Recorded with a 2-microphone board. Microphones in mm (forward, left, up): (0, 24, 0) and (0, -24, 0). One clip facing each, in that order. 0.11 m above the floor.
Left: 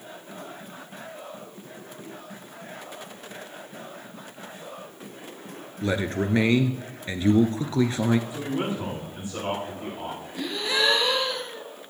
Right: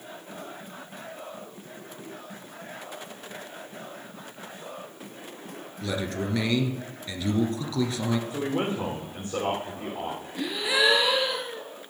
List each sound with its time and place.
5.8 s a man speaking: 35° left (ahead or behind), 1.3 m
8.3 s a man speaking: 50° right (ahead or behind), 7 m
10.4 s a gasp: 10° right (ahead or behind), 1.5 m